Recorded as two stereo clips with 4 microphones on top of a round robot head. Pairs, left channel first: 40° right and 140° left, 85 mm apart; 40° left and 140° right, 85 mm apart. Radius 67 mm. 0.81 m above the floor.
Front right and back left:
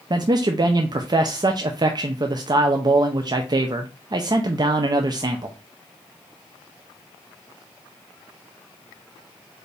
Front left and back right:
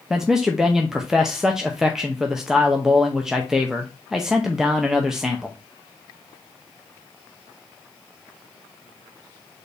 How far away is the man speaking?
About 0.6 m.